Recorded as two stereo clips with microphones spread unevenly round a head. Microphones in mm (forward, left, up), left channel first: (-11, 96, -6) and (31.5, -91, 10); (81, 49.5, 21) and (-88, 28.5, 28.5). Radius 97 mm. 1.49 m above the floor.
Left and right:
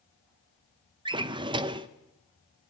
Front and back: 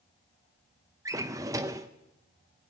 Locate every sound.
1.1 s a drawer: 115° right, 0.7 m